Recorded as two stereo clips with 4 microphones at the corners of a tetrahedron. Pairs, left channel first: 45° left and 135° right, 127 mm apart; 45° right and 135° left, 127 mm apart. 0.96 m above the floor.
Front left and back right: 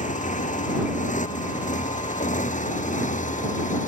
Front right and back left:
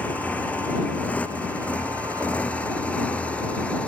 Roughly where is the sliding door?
No sliding door in this recording.